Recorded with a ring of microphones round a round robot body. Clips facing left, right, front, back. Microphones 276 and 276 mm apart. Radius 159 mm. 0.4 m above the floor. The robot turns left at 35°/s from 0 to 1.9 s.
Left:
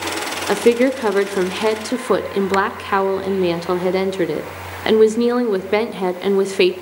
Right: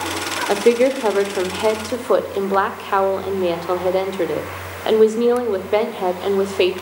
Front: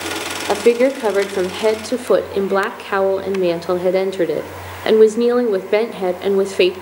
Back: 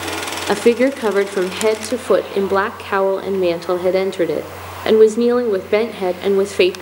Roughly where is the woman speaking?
Behind left.